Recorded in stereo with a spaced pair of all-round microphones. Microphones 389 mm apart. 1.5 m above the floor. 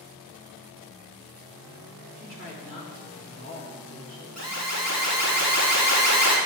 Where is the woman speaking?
30° left (ahead or behind), 3 m.